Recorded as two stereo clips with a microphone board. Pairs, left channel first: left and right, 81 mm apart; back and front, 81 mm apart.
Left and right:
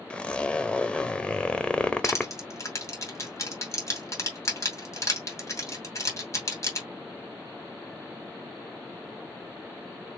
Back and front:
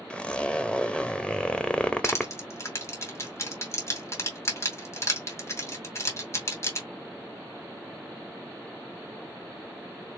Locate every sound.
0.1 s a zipper: 140° left, 0.6 m
2.0 s crushing: 135° left, 2.5 m